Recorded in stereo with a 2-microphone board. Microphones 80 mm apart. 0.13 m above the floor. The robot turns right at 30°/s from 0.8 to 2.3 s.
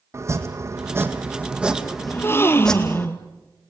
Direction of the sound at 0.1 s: 35° right.